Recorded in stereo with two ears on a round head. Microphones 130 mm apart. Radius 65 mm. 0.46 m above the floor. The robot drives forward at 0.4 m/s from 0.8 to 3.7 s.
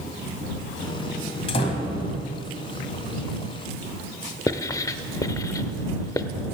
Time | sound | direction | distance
1.5 | a door slam | 45° left (ahead or behind) | 2.0 m
4.5 | writing | 25° left (ahead or behind) | 0.6 m